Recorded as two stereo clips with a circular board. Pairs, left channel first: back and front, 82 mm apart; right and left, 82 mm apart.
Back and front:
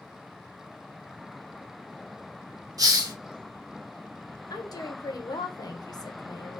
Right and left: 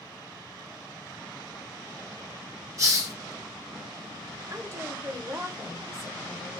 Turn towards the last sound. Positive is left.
turn(degrees=145)